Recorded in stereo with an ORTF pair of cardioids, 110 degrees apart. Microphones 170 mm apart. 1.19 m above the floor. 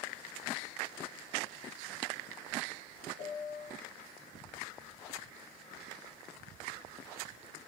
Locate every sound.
3.2 s a piano: 60° left, 6 m